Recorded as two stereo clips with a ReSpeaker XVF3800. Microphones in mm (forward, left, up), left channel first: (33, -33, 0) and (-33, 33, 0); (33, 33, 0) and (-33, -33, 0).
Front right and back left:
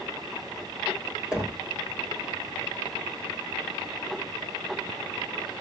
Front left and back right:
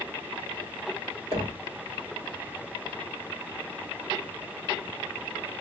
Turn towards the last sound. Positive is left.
turn(degrees=-140)